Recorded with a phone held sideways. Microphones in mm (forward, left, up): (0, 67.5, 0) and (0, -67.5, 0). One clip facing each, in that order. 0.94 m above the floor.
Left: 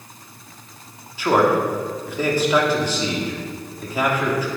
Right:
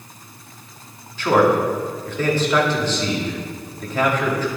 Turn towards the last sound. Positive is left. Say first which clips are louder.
# right 1 dB
turn(degrees=10)  # may be behind; listen again after turning